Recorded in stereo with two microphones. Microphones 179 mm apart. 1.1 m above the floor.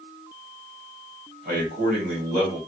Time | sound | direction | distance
1.4 | a man speaking | 60° right (ahead or behind) | 1.7 m